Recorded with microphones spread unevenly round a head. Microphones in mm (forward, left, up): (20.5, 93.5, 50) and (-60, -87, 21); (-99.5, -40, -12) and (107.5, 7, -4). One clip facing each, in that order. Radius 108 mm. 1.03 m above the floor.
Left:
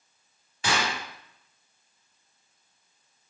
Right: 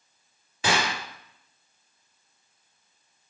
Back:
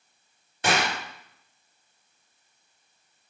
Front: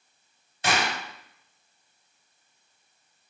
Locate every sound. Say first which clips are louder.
0.6 s a gunshot: right 2 dB, back 2 dB; 125° right, 1.4 m